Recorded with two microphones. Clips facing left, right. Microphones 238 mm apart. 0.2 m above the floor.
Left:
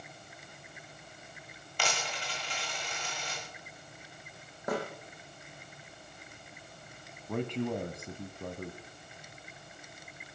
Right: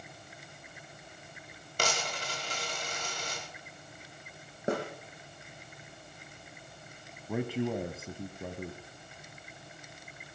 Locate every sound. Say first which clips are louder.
1.8 s a dropped coin: right 3 dB; 45° right (ahead or behind), 10 m
4.7 s a snare drum: right 2 dB; 30° right (ahead or behind), 10 m
7.3 s a man speaking: right 1 dB; 5° right (ahead or behind), 1.4 m